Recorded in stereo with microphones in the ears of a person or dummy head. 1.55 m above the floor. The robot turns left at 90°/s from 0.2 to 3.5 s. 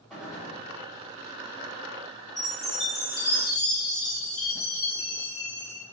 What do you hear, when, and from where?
0.1 s a gunshot: 10° left, 1.2 m; by 0.6 s 30° right, 1.2 m
2.4 s a chime: 155° right, 1.3 m; by 5.8 s 100° left, 1.3 m